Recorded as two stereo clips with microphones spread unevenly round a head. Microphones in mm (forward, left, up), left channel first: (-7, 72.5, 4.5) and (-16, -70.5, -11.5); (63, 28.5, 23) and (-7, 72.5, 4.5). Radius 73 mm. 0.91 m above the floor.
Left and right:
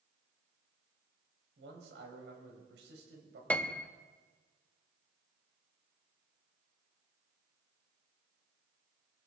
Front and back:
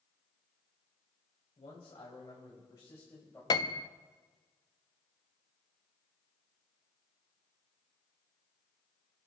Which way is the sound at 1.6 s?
75° right.